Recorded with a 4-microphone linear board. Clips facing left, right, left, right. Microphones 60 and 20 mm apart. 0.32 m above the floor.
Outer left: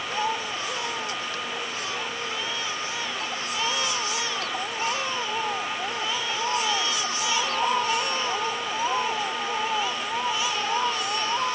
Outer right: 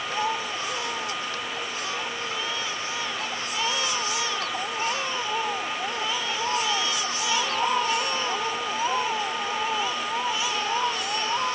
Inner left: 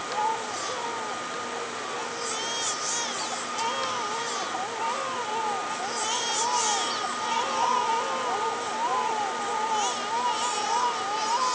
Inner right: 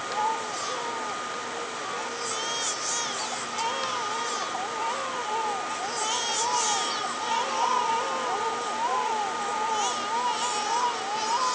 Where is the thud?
I don't hear a thud.